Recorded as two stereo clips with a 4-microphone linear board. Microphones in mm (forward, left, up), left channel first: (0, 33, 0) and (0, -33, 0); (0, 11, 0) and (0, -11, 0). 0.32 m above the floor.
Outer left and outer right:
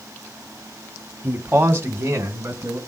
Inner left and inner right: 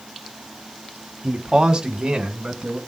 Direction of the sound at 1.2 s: 25° right (ahead or behind).